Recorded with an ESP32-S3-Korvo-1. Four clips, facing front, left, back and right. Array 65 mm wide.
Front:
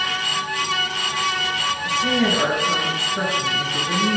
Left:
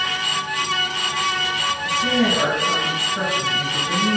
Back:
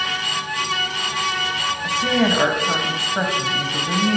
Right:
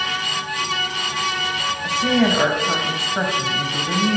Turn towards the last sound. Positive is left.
turn(degrees=-150)